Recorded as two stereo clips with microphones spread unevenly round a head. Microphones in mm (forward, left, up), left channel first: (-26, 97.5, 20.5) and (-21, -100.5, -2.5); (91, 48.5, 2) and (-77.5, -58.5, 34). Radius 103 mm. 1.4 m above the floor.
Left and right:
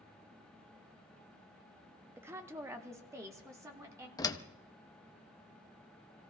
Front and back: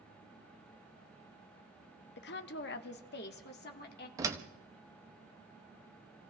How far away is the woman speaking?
About 0.6 m.